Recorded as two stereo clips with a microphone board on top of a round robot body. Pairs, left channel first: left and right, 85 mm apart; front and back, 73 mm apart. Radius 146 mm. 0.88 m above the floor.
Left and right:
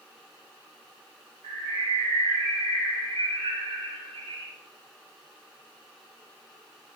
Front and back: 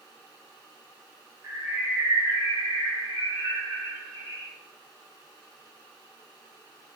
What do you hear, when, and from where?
1.4 s a bird: 125° right, 1.3 m